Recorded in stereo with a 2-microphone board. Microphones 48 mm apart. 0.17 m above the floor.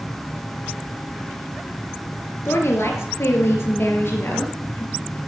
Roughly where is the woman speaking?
Left.